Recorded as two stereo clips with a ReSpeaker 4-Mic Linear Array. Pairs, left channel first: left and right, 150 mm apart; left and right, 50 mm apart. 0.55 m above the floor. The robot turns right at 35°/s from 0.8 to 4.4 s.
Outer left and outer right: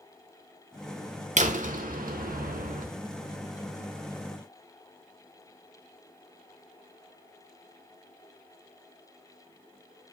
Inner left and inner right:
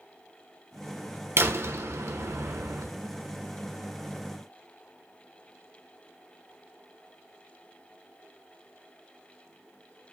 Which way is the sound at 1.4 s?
125° right.